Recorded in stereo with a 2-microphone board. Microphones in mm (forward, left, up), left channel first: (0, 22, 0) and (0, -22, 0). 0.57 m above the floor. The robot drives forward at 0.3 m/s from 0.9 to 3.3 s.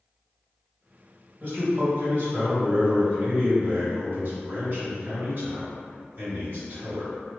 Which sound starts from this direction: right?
A man speaking, at 1.4 s.